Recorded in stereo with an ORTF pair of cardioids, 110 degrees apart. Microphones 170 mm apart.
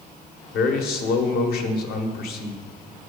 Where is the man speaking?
65° left, 1.2 m.